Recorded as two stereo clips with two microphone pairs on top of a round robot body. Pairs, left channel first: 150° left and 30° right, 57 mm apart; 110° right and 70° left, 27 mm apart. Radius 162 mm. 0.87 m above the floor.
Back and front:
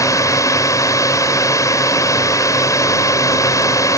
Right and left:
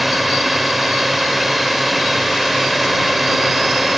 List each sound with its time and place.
0.0 s a drone: 155° left